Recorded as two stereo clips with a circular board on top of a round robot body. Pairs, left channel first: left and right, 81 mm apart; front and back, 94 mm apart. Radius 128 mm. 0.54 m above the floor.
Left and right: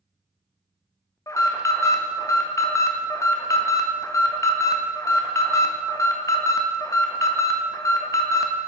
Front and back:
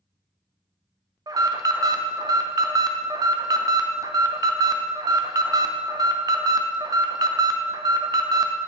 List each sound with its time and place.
1.3 s an alarm: 135° left, 0.6 m